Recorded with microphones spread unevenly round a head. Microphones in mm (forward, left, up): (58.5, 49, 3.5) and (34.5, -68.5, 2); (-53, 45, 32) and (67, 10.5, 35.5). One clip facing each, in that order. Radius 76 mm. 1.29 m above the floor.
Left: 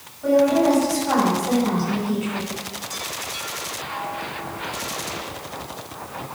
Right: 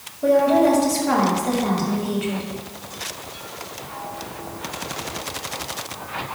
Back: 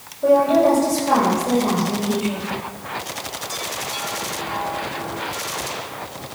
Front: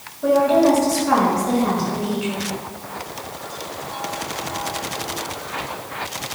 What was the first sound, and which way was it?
A woman speaking, 125° right.